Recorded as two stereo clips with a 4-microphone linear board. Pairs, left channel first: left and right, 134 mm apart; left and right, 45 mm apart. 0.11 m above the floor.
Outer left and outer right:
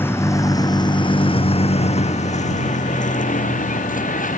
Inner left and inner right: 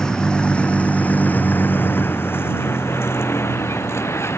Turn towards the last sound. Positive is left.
turn(degrees=80)